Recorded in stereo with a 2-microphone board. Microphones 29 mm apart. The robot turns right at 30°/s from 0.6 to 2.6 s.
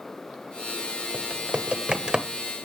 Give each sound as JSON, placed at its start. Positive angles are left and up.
{"t": 1.1, "sound": "typing on a keyboard", "side_deg": -45, "distance_m": 0.8}